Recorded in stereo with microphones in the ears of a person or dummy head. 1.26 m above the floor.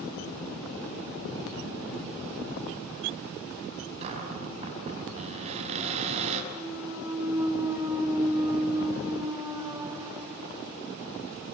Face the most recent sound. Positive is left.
turn(degrees=-15)  # may be behind; listen again after turning